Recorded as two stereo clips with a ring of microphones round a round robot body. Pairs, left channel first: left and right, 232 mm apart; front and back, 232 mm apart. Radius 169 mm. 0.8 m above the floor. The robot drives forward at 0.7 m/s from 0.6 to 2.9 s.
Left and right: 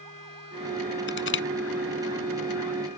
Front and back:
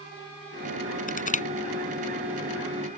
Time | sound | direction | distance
1.1 | crushing | 55° left | ?